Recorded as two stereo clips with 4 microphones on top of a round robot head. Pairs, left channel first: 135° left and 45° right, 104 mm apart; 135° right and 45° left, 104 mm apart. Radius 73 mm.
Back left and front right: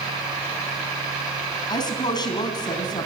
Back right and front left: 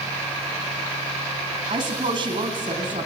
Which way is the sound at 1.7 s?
90° left.